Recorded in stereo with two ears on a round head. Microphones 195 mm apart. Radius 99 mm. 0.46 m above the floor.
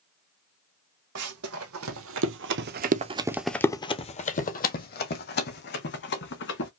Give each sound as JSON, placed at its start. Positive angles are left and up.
{"t": 1.1, "sound": "running footsteps", "side_deg": -75, "distance_m": 1.7}